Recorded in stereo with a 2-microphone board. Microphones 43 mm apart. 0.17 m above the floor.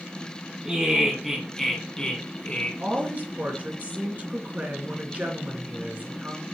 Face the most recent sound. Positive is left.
turn(degrees=-40)  # may be behind; listen again after turning